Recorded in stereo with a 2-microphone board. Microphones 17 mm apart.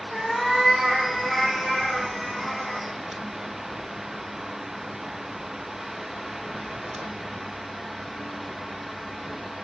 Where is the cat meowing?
25° right (ahead or behind), 1.7 m; by 2.9 s 5° left (ahead or behind), 3 m.